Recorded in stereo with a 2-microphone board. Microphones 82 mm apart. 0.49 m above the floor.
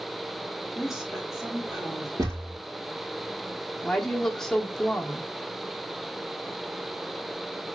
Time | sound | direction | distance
0.8 | a woman speaking | 5° right (ahead or behind) | 2 m
2.2 | a thud | 50° right (ahead or behind) | 3 m
3.8 | a woman speaking | 5° left (ahead or behind) | 1.0 m